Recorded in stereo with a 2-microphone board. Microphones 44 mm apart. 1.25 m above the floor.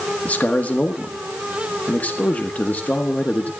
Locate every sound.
0.2 s a man speaking: 35° left (ahead or behind), 1.4 m